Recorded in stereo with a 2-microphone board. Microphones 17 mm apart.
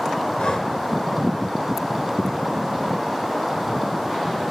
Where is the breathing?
75° left (ahead or behind), 4 m.